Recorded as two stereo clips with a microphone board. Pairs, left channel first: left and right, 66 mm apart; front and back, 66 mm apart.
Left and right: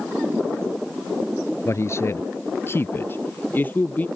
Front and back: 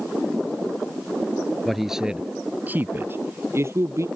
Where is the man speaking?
90° left; by 4.0 s 150° left.